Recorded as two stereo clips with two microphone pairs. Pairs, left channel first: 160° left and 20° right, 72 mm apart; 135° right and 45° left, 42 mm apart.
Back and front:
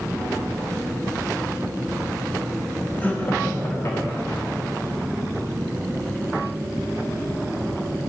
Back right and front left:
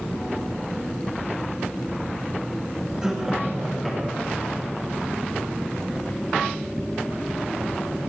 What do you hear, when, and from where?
3.0 s laughter: 115° left, 1.0 m; by 4.4 s 140° left, 1.7 m